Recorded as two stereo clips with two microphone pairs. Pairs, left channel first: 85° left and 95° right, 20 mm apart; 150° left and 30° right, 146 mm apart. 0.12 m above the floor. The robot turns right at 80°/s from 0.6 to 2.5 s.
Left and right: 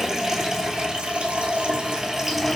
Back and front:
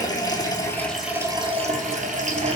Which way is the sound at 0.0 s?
150° right.